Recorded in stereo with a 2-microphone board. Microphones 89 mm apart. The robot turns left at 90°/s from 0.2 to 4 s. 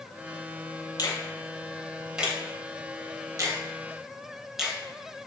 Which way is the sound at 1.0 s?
45° left (ahead or behind).